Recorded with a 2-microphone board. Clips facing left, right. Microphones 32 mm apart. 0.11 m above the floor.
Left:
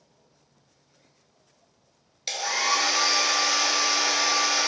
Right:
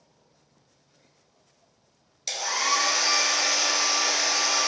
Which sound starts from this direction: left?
A hair dryer, at 2.3 s.